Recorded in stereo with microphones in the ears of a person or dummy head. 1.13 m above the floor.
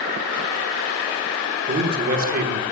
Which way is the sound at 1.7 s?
45° right (ahead or behind).